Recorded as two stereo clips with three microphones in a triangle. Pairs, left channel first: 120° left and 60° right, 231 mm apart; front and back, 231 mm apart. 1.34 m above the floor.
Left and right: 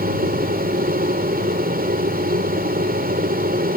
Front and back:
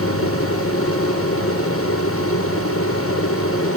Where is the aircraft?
10° right.